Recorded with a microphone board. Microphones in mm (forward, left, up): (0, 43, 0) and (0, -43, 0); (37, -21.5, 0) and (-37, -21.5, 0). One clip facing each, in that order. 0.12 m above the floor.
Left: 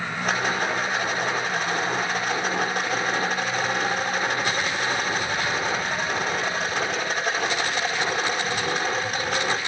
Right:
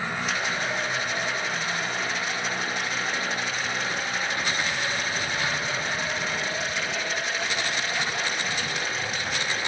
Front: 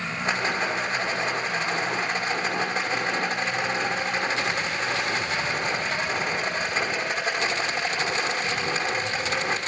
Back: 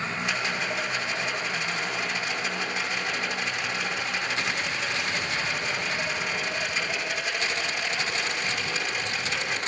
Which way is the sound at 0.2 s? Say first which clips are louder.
Left 8 dB, front 7 dB; 45° left.